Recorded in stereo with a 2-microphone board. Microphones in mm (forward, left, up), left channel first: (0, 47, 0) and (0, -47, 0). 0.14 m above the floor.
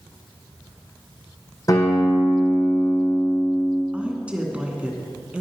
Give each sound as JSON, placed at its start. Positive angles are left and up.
{"t": 1.7, "sound": "a guitar", "side_deg": 35, "distance_m": 3.0}
{"t": 3.9, "sound": "a woman speaking", "side_deg": -15, "distance_m": 1.1}